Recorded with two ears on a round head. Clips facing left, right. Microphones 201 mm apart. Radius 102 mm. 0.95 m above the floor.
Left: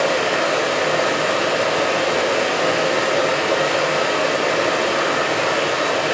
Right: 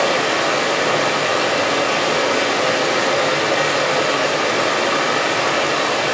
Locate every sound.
0.0 s running water: 60° right (ahead or behind), 0.7 m